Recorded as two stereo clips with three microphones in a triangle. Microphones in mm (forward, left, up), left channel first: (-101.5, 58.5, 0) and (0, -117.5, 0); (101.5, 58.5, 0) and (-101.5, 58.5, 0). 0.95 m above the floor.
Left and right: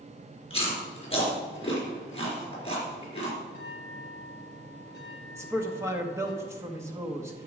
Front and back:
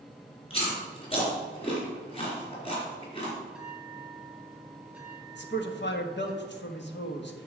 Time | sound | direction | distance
0.5 | chewing | 60° left | 3.5 m
3.5 | a bell | 95° left | 1.3 m
5.3 | a man speaking | 15° left | 1.4 m